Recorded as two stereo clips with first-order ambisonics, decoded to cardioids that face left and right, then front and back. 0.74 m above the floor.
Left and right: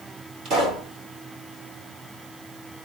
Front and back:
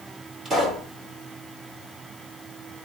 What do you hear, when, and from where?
0.5 s a pop: 110° right, 1.8 m